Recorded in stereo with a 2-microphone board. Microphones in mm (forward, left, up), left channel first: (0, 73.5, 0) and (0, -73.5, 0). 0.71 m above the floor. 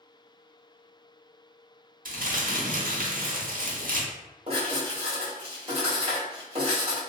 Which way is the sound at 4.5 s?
45° right (ahead or behind).